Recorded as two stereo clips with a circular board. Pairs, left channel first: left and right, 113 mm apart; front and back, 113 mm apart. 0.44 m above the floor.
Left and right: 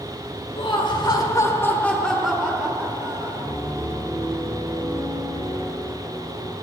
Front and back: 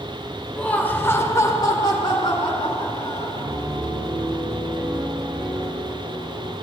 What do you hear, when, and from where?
0.6 s laughter: 75° left, 1.8 m; by 3.4 s 35° right, 2 m
3.4 s a piano: 130° left, 6 m